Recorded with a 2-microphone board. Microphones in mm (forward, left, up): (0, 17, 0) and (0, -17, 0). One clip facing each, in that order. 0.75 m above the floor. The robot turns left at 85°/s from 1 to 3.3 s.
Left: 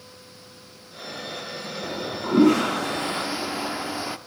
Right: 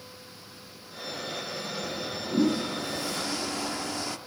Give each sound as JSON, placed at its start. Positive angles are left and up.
{"t": 1.8, "sound": "a toilet flushing", "azimuth_deg": 140, "distance_m": 0.6}